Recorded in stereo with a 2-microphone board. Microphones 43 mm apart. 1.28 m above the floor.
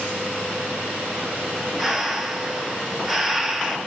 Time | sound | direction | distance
1.8 | breathing | 5° right (ahead or behind) | 0.7 m